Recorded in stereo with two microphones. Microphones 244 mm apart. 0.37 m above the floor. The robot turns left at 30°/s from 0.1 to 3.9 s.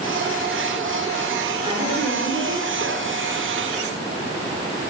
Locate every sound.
1.6 s a woman speaking: 20° right, 6 m; by 3.1 s 65° right, 6 m